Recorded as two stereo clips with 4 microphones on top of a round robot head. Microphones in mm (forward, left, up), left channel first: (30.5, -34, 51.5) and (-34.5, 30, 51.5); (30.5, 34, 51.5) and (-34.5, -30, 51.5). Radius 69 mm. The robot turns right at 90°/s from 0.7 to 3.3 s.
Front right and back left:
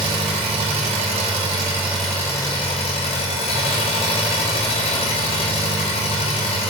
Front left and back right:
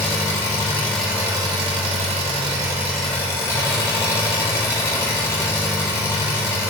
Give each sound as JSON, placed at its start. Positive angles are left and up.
{"t": 0.0, "sound": "an engine running", "azimuth_deg": 105, "distance_m": 1.8}